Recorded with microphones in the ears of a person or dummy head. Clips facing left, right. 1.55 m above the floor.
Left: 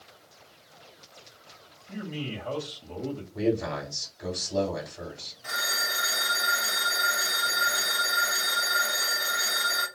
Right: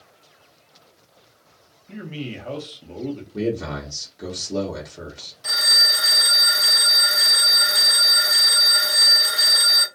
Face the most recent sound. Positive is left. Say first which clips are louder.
# right 2 dB
turn(degrees=-55)  # may be behind; listen again after turning